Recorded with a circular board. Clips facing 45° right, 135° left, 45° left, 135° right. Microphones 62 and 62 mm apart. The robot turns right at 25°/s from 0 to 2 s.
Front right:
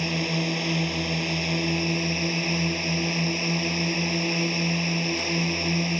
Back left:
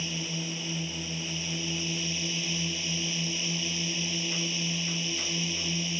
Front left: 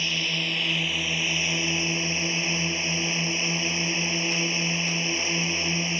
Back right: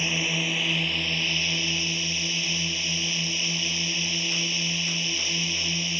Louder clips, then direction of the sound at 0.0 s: Front right 9 dB, back right 1 dB; 65° right.